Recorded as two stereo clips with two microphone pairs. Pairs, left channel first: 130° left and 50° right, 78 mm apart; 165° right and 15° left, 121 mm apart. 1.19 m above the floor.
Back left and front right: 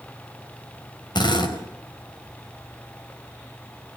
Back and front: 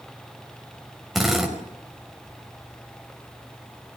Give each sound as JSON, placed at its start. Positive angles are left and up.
{"t": 1.1, "sound": "a drill", "azimuth_deg": 105, "distance_m": 5.0}